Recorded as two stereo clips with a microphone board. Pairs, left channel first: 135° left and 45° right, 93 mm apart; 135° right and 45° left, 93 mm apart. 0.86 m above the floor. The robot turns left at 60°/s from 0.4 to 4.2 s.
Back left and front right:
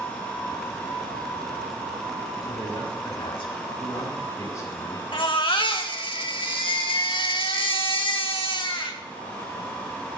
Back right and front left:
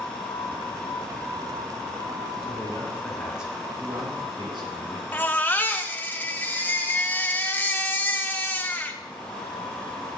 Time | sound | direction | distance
2.4 | a man speaking | 175° right | 7.5 m
5.1 | a baby crying | 160° left | 1.9 m